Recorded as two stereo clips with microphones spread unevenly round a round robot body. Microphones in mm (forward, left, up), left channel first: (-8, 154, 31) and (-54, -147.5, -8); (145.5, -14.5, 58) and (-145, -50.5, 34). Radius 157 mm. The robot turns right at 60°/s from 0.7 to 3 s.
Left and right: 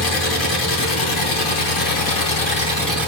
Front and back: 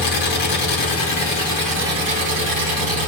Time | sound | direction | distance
0.0 | an engine running | 35° left | 4.5 m